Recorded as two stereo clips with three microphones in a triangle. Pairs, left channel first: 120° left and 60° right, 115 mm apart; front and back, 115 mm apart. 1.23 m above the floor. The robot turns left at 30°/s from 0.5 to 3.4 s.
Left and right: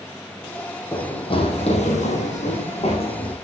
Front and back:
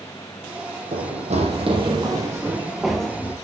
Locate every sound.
0.9 s running footsteps: straight behind, 3 m; by 3.4 s 75° left, 4.5 m